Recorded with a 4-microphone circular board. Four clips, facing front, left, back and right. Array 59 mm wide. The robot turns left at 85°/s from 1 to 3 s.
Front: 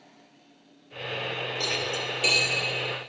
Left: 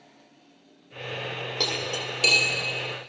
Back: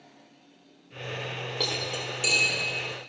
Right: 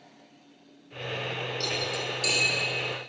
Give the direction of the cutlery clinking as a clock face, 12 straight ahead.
8 o'clock.